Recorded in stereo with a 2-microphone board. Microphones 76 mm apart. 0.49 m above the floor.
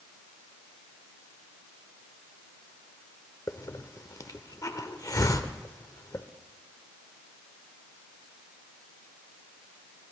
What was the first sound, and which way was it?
A hiss, 50° left (ahead or behind).